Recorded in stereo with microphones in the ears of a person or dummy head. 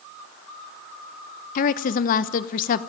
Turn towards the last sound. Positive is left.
turn(degrees=45)  # may be behind; listen again after turning